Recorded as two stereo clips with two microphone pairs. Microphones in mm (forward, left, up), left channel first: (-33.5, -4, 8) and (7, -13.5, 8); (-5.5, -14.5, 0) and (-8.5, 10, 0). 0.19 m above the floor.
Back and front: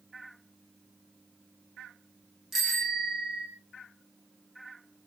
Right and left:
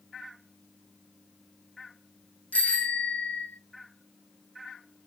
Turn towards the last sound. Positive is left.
turn(degrees=-95)